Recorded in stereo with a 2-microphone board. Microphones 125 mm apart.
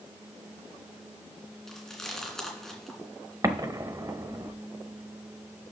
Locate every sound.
1.7 s chewing: 5° left (ahead or behind), 2.5 m
3.4 s an explosion: 30° right (ahead or behind), 0.8 m